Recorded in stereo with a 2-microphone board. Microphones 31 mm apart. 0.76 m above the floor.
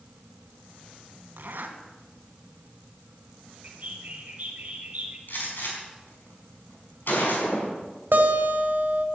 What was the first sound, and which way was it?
A zipper, 70° right (ahead or behind).